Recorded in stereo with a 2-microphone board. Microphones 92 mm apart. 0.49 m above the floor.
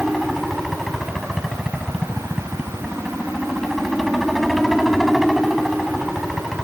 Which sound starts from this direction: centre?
A helicopter, at 0.0 s.